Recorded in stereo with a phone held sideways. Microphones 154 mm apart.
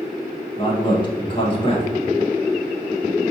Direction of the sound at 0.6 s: 30° left (ahead or behind).